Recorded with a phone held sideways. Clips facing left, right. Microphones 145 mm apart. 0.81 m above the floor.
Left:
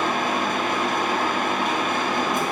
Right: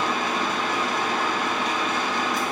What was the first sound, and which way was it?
A machine running, 55° left (ahead or behind).